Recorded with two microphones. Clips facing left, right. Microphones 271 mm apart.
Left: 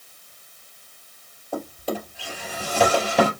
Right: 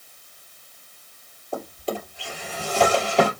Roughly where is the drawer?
Centre.